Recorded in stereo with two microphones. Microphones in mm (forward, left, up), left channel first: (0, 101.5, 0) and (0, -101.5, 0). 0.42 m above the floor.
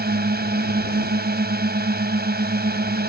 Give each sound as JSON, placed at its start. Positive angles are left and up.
{"t": 0.0, "sound": "a drone", "side_deg": -50}